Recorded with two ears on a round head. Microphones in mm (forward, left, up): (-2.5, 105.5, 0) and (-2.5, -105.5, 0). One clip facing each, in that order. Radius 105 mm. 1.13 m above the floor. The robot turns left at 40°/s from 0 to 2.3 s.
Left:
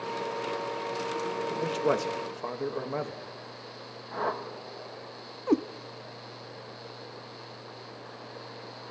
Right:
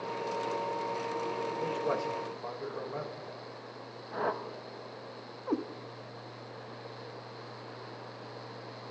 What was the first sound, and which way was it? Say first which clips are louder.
A man speaking: left 7 dB; 115° left.